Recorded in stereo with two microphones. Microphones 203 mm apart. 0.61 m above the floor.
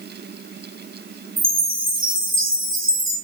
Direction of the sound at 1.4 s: 80° right.